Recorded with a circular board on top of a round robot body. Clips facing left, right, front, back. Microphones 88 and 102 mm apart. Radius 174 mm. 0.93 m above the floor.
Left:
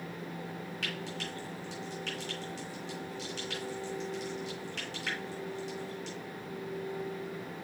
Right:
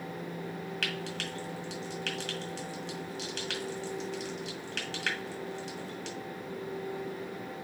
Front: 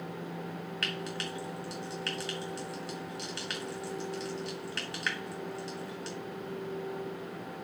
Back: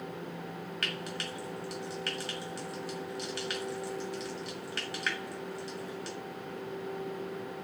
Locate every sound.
0.8 s frying: 90° right, 1.9 m